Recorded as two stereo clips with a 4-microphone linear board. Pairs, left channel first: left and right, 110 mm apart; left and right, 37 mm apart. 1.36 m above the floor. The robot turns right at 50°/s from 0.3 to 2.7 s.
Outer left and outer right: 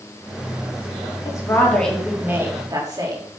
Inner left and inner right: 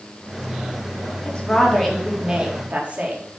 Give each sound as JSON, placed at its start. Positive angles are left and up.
{"t": 1.2, "sound": "a woman speaking", "azimuth_deg": 145, "distance_m": 3.5}